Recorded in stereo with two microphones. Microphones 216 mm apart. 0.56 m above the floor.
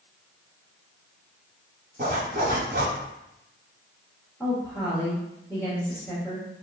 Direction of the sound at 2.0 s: 50° right (ahead or behind).